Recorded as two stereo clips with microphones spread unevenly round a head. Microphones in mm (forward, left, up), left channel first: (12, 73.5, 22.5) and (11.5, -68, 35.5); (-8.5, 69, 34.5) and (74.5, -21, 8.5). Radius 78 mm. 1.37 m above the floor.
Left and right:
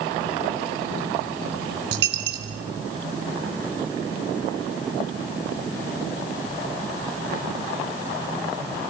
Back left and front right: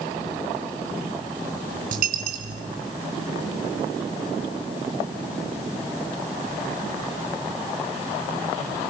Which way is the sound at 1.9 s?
85° right.